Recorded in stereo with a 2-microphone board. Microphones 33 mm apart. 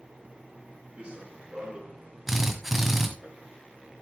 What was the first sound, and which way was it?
Running footsteps, 35° right (ahead or behind).